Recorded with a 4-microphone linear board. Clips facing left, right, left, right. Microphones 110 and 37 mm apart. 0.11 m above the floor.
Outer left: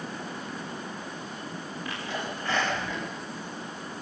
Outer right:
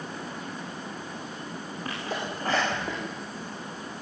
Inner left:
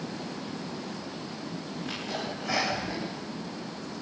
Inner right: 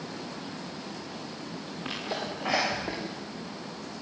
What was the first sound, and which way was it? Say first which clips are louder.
A sneeze: outer right 2 dB, inner right 2 dB; 40° right (ahead or behind).